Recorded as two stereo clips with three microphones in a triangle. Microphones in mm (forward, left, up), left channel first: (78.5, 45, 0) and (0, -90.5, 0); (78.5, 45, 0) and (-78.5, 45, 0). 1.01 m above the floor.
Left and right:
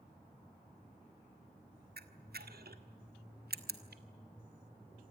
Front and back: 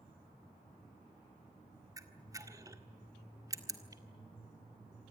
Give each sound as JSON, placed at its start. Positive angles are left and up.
{"t": 2.0, "sound": "a camera shutter", "azimuth_deg": -110, "distance_m": 1.6}